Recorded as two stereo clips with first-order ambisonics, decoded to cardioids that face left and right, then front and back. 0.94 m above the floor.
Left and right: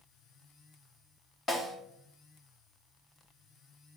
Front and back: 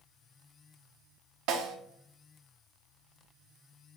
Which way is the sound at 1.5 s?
160° left.